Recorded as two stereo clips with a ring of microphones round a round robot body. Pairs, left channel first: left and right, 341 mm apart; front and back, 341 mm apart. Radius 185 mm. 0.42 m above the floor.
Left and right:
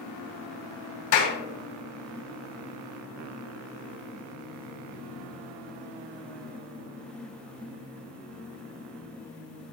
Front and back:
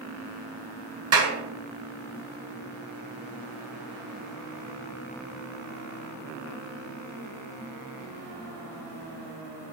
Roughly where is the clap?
Behind left.